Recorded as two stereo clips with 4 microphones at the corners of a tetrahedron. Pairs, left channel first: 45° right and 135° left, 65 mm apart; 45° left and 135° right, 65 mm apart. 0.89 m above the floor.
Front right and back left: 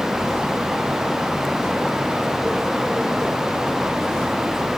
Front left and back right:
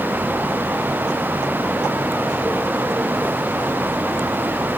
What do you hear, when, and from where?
Only background noise.